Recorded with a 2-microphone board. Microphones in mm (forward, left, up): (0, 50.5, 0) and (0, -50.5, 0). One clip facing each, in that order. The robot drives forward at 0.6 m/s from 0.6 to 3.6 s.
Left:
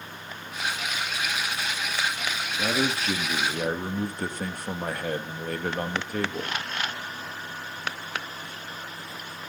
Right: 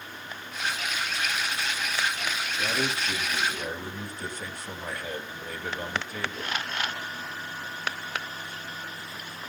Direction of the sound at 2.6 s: 45° left (ahead or behind).